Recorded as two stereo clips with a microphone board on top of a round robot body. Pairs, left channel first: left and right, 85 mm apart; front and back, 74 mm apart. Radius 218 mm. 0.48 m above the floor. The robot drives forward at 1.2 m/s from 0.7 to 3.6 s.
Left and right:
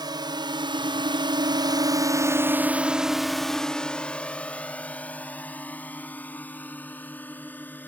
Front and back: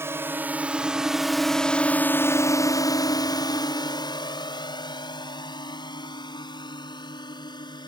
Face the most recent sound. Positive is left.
turn(degrees=20)